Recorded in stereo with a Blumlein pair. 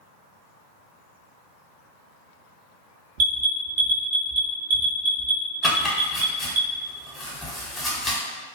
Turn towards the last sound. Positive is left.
turn(degrees=10)